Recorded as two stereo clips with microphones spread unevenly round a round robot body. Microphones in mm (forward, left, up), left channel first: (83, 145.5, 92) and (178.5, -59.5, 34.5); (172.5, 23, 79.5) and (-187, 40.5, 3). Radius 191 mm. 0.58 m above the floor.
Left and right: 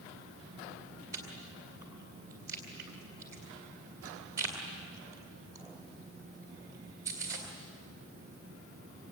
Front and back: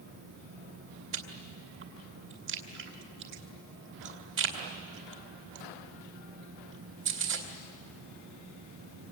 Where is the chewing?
135° right, 2.5 m.